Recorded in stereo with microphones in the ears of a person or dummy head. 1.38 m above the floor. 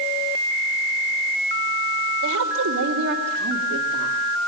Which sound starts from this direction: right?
A woman speaking, at 2.2 s.